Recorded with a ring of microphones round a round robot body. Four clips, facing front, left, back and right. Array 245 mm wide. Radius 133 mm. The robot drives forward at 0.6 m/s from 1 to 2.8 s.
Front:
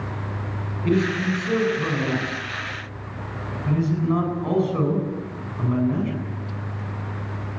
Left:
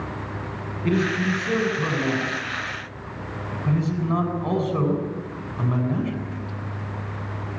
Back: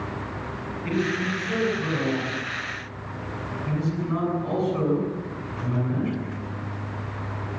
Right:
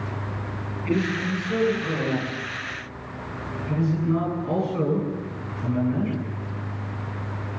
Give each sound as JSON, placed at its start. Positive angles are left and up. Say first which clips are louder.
{"t": 0.8, "sound": "a man speaking", "louder": "left 2 dB, front 5 dB", "azimuth_deg": 55, "distance_m": 8.5}